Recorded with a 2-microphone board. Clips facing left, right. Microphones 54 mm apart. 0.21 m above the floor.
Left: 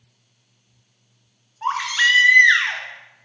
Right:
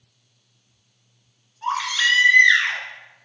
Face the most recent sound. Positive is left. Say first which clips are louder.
# left 3 dB
turn(degrees=35)  # may be behind; listen again after turning